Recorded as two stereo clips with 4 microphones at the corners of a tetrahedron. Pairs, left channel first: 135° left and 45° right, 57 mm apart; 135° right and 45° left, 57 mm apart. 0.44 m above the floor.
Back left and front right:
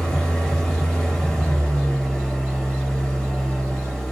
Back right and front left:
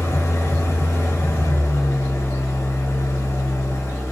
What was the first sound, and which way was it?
An engine running, 145° right.